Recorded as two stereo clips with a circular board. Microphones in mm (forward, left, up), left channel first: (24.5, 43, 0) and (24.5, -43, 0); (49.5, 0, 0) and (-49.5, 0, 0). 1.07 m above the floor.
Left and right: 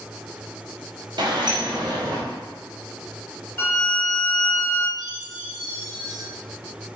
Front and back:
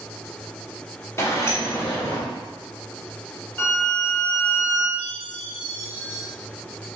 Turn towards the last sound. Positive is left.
turn(degrees=-120)